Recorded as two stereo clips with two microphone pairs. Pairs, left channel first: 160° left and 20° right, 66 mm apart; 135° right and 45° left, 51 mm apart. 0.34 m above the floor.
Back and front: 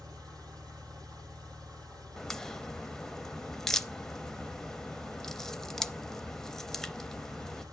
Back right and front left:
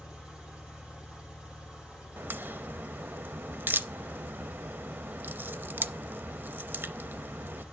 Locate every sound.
0.0 s an engine running: 25° right, 7 m
2.2 s a crack: 80° left, 0.6 m